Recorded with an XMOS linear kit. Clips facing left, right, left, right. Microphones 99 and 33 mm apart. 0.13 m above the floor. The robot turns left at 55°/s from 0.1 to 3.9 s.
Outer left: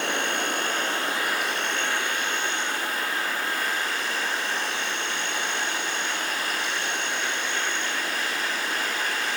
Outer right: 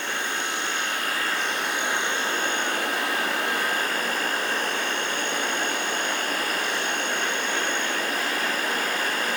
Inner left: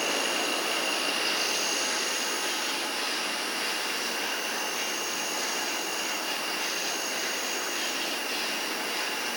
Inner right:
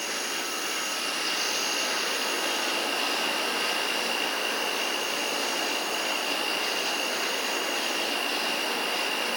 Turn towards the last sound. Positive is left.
turn(degrees=-130)